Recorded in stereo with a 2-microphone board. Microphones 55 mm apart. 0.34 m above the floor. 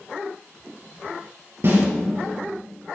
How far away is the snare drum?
About 5 m.